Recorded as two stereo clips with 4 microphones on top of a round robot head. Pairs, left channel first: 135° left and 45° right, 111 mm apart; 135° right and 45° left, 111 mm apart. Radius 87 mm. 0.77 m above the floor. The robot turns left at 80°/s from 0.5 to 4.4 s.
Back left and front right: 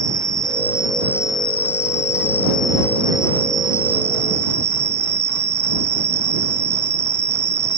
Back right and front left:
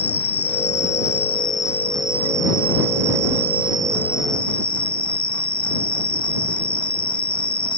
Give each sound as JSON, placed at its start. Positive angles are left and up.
{"t": 0.0, "sound": "an insect", "azimuth_deg": -105}